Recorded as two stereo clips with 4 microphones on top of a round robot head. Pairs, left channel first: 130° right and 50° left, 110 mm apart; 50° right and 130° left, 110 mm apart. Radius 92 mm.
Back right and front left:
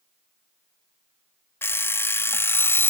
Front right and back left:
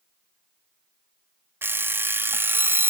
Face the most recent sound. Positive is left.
turn(degrees=180)